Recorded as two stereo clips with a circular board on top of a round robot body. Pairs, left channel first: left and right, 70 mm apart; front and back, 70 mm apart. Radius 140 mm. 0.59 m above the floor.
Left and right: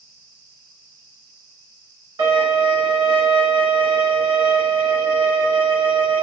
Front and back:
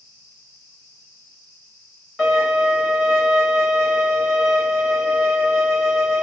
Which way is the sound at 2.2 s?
85° right.